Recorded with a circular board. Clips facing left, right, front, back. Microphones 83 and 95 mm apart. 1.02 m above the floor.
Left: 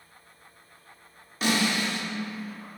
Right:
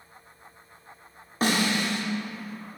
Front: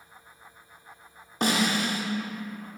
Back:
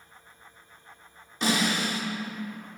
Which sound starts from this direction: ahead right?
A snare drum, at 1.4 s.